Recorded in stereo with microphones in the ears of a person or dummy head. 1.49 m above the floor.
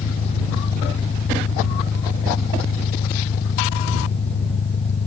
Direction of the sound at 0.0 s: 40° left (ahead or behind).